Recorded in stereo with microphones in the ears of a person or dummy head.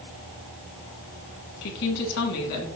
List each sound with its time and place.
1.6 s a woman speaking: 60° left (ahead or behind), 1.3 m